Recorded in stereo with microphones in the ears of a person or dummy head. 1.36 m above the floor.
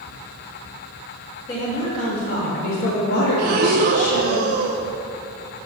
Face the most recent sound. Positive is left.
turn(degrees=-45)  # may be behind; listen again after turning